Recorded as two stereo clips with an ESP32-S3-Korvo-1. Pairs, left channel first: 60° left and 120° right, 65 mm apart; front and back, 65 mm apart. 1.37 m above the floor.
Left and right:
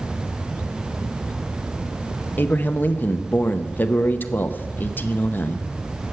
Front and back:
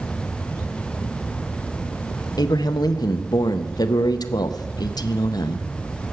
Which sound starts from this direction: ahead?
A man speaking, at 2.4 s.